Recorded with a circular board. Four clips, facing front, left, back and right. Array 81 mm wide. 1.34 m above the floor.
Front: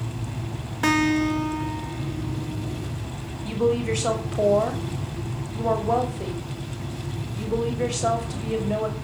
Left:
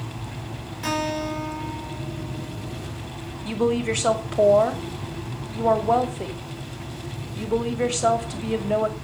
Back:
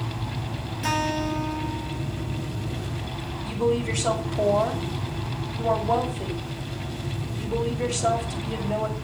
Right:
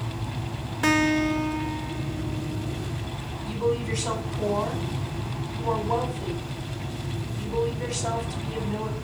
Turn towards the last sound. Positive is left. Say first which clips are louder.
# left 4 dB, front 2 dB
turn(degrees=75)